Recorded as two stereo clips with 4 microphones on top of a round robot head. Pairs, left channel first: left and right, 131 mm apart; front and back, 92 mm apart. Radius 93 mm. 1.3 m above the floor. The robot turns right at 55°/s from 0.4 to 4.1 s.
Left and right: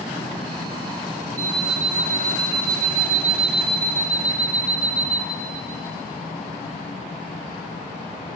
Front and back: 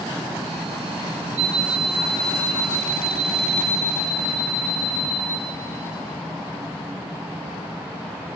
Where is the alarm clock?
160° right, 3.5 m; by 5.2 s 10° right, 3.5 m.